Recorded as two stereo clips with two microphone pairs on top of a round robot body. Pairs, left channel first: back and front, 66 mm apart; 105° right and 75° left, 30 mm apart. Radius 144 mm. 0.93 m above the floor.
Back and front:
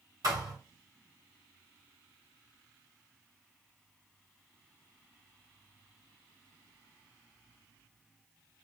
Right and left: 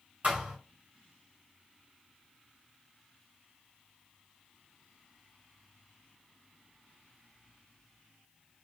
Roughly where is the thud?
Ahead left.